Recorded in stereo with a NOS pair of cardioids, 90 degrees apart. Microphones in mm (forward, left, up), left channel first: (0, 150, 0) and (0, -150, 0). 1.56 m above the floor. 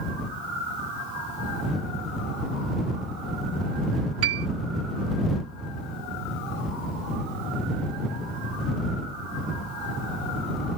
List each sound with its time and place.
4.2 s a piano: 55° right